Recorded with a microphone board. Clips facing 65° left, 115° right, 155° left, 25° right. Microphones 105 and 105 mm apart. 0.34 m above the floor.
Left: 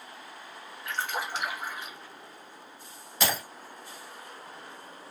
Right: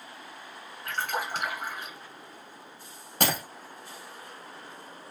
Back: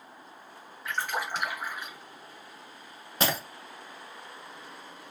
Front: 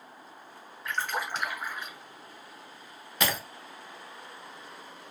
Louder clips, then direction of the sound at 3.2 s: Right 2 dB, back 2 dB; 145° right.